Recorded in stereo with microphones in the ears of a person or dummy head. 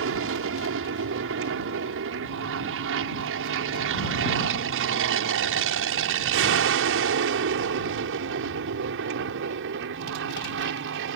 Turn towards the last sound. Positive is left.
turn(degrees=-60)  # may be behind; listen again after turning